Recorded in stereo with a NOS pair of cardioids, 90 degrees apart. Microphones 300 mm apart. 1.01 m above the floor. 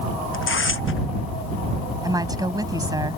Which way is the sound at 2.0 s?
10° right.